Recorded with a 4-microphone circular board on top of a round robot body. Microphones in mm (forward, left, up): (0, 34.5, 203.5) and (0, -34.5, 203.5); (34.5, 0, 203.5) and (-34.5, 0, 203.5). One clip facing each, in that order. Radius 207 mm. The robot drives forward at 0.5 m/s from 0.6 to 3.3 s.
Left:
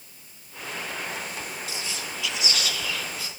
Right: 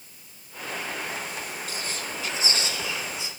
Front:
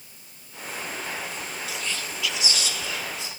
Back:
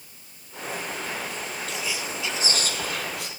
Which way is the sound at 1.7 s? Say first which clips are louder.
Right 1 dB, back 2 dB; 85° right.